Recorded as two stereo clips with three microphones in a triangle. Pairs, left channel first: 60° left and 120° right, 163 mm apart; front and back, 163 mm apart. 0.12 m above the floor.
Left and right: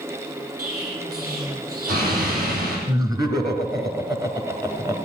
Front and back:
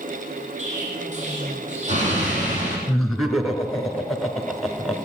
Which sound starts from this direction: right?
Laughter, at 2.9 s.